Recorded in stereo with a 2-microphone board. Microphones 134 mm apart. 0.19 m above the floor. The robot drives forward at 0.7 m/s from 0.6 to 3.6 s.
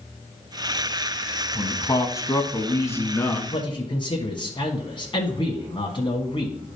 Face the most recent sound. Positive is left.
turn(degrees=40)  # may be behind; listen again after turning